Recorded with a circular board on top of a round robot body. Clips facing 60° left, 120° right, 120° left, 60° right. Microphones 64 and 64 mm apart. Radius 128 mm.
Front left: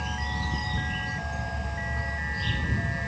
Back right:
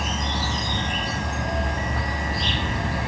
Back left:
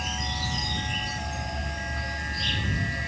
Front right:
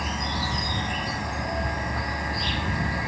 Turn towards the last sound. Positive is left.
turn(degrees=-110)